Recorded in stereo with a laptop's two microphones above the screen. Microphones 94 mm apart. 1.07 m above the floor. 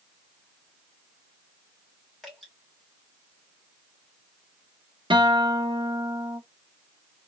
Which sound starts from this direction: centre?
Dripping, at 2.2 s.